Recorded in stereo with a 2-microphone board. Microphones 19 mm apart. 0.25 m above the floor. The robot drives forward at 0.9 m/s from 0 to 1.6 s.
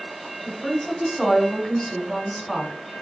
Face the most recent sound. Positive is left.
turn(degrees=20)  # may be behind; listen again after turning